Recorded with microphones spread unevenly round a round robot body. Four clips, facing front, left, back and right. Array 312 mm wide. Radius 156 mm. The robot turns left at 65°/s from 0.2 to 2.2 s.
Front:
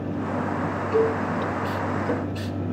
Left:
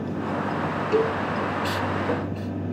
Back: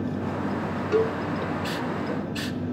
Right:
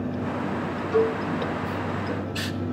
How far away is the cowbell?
About 1.1 m.